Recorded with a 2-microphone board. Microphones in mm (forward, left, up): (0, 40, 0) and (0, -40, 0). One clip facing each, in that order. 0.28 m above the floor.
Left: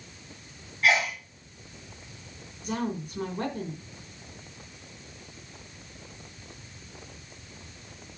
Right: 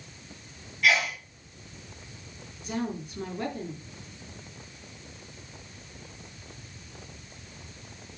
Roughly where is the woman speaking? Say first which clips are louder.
Left 1 dB; left.